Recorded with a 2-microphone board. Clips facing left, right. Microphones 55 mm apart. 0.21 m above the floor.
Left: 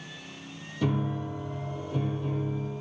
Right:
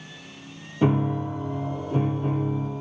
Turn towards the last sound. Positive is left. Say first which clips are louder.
# right 7 dB
turn(degrees=-30)  # may be behind; listen again after turning